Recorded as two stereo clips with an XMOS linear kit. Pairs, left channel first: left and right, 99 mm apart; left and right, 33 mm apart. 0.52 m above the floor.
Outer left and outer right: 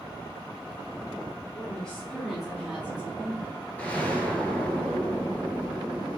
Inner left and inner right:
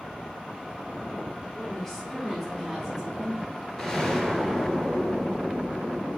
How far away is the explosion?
About 1.4 m.